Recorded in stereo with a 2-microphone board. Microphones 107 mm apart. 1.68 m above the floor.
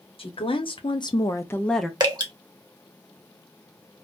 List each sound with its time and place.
0.2 s a woman speaking: 55° left (ahead or behind), 0.9 m; by 1.9 s centre (ahead or behind), 0.5 m
2.0 s dripping: 40° right (ahead or behind), 1.0 m